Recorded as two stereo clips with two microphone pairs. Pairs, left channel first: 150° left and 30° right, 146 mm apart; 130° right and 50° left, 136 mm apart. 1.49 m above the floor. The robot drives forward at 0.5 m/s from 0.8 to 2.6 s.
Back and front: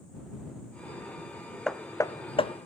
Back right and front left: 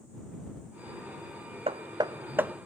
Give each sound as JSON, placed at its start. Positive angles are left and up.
{"t": 1.7, "sound": "hammering", "azimuth_deg": 65, "distance_m": 0.6}